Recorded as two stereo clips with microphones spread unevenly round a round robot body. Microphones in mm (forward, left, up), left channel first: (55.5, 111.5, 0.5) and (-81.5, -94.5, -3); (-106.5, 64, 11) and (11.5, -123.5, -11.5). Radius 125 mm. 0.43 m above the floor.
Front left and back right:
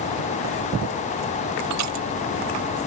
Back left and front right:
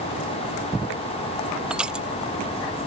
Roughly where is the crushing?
Behind right.